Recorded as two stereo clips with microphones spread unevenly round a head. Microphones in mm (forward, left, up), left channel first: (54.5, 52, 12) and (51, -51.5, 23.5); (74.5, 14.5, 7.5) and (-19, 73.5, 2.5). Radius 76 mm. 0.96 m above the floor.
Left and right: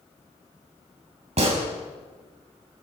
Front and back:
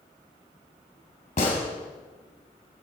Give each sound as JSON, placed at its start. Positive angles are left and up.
{"t": 1.4, "sound": "a gunshot", "azimuth_deg": -80, "distance_m": 3.5}